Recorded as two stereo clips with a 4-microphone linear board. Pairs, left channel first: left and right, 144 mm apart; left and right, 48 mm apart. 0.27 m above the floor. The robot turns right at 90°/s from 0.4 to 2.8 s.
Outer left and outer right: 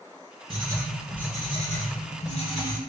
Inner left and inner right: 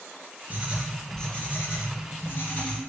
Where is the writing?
50° right, 0.7 m; by 2.8 s 160° left, 0.7 m.